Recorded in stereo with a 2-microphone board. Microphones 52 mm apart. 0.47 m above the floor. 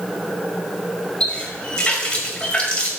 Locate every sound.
1.2 s a running tap: 25° left (ahead or behind), 1.6 m